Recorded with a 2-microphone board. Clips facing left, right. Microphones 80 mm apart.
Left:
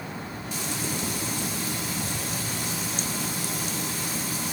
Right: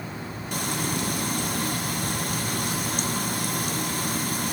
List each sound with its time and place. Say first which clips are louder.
0.5 s frying: right 4 dB; 60° right (ahead or behind), 0.9 m